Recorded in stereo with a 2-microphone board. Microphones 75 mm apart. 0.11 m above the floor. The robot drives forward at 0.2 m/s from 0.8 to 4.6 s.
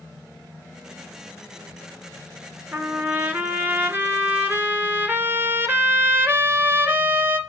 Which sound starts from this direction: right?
A trumpet, at 2.7 s.